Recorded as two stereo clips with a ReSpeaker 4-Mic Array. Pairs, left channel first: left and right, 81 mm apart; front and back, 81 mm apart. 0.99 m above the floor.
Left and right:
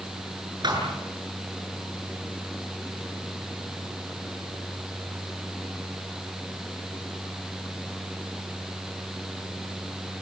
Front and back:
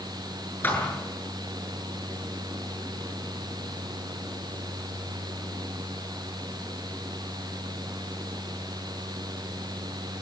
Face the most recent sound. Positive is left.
turn(degrees=-65)